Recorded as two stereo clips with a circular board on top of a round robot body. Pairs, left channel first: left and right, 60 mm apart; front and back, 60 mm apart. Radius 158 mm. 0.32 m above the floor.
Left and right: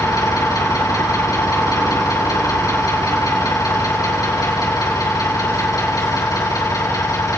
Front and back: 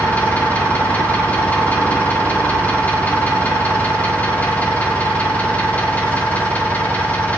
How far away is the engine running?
About 3.5 m.